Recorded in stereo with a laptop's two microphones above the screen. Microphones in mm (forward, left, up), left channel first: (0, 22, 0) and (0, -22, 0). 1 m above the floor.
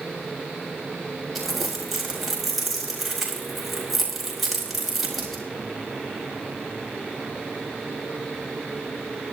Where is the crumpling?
5° right (ahead or behind), 4.5 m.